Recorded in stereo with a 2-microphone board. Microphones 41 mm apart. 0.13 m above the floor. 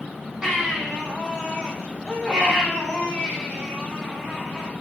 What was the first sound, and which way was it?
A baby crying, 20° right (ahead or behind).